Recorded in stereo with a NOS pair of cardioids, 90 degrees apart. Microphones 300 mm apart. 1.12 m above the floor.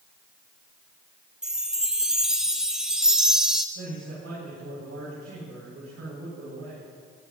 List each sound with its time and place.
1.4 s a chime: straight ahead, 0.9 m
3.8 s a man speaking: 55° right, 5 m